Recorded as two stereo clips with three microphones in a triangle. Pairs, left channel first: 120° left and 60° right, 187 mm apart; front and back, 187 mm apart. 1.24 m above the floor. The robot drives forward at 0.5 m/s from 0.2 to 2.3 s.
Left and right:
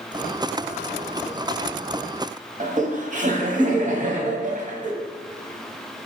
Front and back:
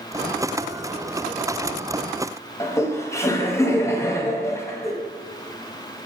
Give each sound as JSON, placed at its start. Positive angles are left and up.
{"t": 2.6, "sound": "laughter", "azimuth_deg": -70, "distance_m": 0.7}